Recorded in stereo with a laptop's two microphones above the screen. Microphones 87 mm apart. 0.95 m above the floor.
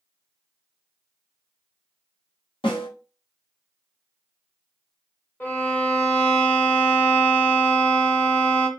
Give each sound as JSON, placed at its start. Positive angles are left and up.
{"t": 2.6, "sound": "a snare drum", "side_deg": 75, "distance_m": 1.0}
{"t": 5.4, "sound": "a violin", "side_deg": 20, "distance_m": 0.8}